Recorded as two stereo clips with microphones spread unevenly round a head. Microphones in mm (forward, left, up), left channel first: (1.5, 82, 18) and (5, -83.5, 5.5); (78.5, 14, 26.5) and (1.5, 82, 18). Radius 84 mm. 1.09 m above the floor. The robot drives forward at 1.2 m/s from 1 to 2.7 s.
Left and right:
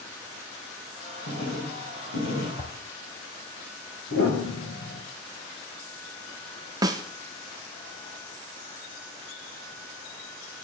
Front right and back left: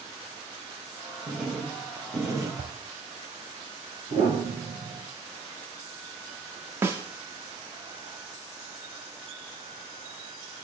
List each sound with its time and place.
1.3 s writing: 55° left, 3.5 m; by 2.5 s 80° left, 3 m
2.6 s a whoosh: 145° left, 0.9 m; by 2.7 s 150° left, 1.0 m
4.1 s a piano: 110° left, 4 m
6.8 s a snare drum: 150° right, 0.6 m